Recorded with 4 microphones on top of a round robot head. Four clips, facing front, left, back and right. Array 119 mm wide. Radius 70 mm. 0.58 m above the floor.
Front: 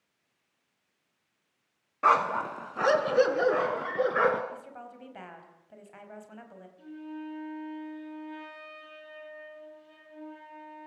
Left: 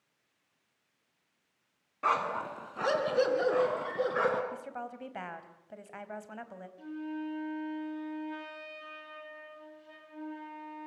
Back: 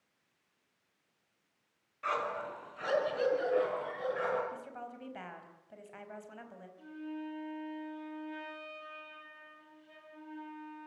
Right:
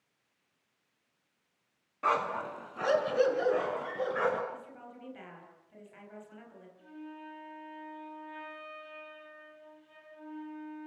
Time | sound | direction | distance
2.0 | a dog barking | straight ahead | 1.9 m
4.5 | a woman speaking | 85° left | 4 m
6.8 | a flute | 85° left | 8 m